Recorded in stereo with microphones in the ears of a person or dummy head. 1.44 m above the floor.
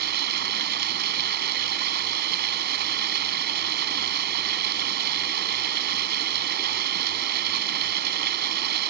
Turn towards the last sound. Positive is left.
turn(degrees=-50)  # may be behind; listen again after turning